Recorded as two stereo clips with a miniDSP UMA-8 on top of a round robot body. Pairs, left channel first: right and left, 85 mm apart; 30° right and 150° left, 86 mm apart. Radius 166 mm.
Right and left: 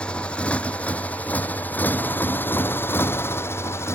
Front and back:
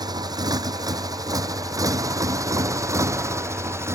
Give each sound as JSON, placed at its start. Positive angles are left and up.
{"t": 0.0, "sound": "a motorcycle", "azimuth_deg": -170}